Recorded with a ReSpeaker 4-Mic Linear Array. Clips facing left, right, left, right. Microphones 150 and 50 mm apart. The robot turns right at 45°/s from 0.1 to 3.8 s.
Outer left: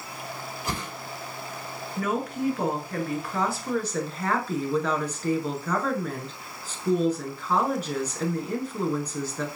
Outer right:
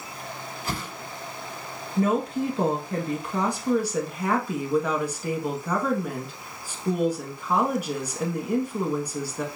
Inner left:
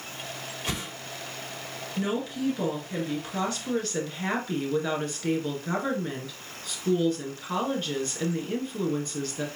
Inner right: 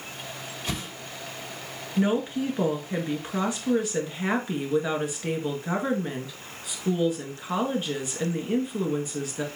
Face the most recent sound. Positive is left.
turn(degrees=-10)  # may be behind; listen again after turning